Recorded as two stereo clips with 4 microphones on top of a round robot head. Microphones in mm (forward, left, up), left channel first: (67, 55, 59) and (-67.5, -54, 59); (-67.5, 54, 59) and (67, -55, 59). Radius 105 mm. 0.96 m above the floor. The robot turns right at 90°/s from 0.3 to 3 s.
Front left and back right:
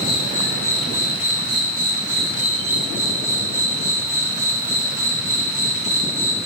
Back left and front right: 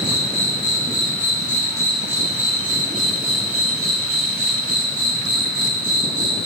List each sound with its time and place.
0.0 s an insect: 80° left, 3 m; by 6.5 s 35° right, 3 m